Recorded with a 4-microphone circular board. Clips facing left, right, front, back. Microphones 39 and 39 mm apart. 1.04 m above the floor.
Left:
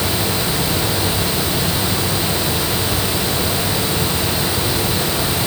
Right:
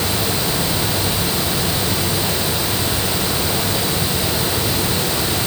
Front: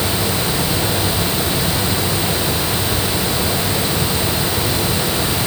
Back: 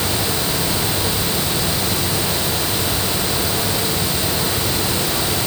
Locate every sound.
Only background noise.